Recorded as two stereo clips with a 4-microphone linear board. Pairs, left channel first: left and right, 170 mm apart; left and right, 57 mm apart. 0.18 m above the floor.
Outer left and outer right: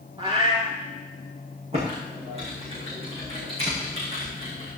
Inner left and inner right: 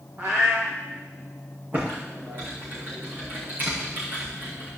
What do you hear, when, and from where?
0.2 s a cat meowing: 30° right (ahead or behind), 3 m
1.7 s typing on a keyboard: 35° right (ahead or behind), 6 m